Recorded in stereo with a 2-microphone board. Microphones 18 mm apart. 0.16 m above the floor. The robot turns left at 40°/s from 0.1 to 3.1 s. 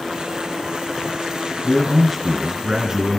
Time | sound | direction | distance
1.6 | a man speaking | 15° left | 1.6 m